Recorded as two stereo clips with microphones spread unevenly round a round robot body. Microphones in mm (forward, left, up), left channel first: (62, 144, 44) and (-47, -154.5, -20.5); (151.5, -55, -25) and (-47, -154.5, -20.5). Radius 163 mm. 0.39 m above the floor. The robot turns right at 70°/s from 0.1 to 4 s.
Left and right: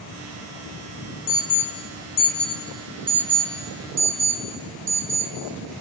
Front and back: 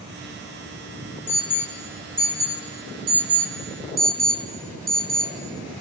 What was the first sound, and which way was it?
An alarm, 60° left.